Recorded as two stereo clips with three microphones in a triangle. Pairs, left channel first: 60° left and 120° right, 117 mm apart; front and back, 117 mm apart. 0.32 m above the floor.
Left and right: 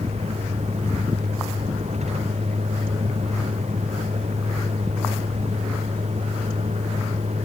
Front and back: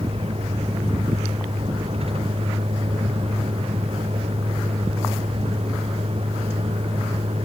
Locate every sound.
0.0 s a vehicle: 145° right